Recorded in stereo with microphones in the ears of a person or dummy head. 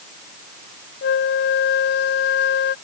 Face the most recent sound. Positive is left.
turn(degrees=60)  # may be behind; listen again after turning